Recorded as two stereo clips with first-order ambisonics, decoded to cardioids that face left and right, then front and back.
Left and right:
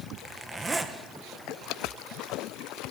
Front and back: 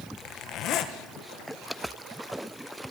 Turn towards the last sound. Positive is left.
turn(degrees=-15)